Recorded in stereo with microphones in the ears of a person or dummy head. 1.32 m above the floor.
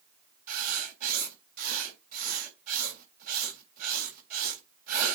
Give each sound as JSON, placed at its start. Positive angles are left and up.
{"t": 0.5, "sound": "writing", "side_deg": -50, "distance_m": 3.5}